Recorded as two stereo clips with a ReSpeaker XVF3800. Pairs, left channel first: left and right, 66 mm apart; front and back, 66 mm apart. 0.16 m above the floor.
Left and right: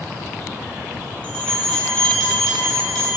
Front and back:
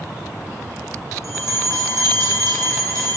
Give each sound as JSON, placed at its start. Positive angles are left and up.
{"t": 1.2, "sound": "a bell", "azimuth_deg": 160, "distance_m": 1.3}